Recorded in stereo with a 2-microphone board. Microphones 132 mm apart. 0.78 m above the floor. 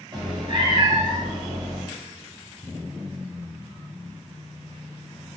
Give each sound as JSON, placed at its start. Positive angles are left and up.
{"t": 0.1, "sound": "a cat meowing", "side_deg": -35, "distance_m": 1.5}